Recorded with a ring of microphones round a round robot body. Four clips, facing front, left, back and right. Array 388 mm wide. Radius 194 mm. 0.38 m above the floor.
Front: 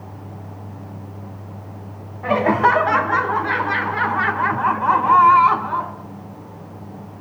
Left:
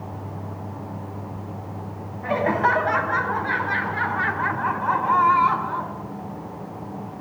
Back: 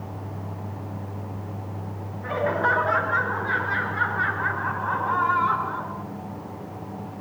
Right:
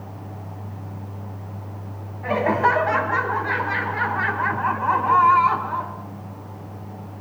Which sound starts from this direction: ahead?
Laughter, at 2.2 s.